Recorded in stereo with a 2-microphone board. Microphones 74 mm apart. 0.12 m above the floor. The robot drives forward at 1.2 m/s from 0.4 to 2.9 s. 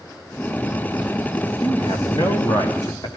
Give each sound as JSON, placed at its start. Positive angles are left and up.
{"t": 1.6, "sound": "a man speaking", "side_deg": 60, "distance_m": 5.0}